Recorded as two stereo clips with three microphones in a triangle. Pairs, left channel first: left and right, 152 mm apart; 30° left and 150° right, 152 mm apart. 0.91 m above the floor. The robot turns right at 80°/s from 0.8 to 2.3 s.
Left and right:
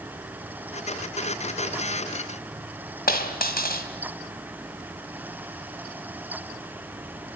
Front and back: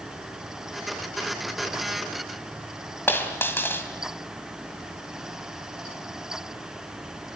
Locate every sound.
3.1 s a dropped coin: 105° left, 2.5 m